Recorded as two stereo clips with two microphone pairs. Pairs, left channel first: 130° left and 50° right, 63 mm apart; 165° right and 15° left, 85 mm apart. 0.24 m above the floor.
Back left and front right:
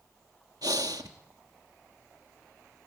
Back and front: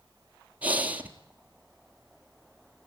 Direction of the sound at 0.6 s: 60° right.